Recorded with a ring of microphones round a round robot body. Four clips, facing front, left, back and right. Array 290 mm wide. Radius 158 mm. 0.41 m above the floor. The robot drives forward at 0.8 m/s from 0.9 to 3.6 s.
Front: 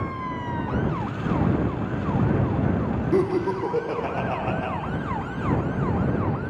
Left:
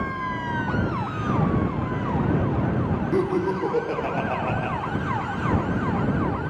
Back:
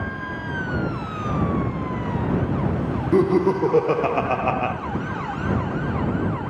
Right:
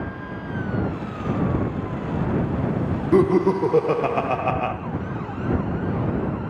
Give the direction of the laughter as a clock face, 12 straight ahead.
4 o'clock.